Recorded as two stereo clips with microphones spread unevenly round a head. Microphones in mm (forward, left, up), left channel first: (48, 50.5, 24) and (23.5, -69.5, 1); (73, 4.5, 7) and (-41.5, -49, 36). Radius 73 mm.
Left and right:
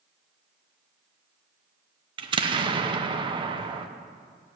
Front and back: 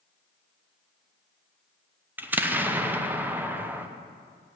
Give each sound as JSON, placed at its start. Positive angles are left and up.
{"t": 2.2, "sound": "an explosion", "azimuth_deg": -70, "distance_m": 0.9}